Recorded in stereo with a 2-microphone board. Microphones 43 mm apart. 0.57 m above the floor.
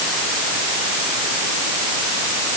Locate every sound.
Only background noise.